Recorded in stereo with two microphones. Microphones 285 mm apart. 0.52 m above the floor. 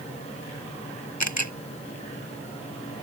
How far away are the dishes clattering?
No dishes clattering in this recording.